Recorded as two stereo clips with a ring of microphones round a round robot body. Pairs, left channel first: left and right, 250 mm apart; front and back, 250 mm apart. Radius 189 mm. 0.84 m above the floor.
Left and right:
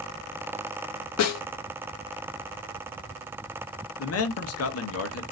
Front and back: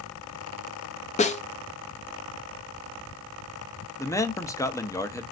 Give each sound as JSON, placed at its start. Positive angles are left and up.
{"t": 1.2, "sound": "a snare drum", "azimuth_deg": 65, "distance_m": 0.6}
{"t": 4.0, "sound": "a man speaking", "azimuth_deg": 80, "distance_m": 0.8}